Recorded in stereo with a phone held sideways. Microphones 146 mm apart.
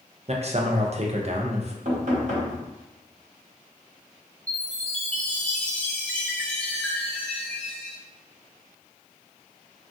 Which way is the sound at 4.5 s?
10° left (ahead or behind).